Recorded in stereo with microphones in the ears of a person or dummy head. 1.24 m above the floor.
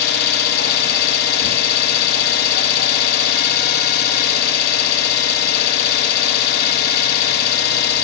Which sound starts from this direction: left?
An engine running, at 0.0 s.